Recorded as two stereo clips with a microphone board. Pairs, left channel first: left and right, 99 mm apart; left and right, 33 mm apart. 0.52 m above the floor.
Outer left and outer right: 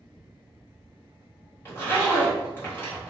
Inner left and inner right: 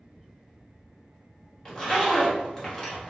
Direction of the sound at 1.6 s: 25° left (ahead or behind).